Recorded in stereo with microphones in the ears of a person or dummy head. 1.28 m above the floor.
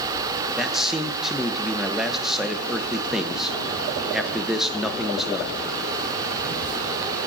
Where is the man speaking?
Centre (ahead or behind), 0.6 m.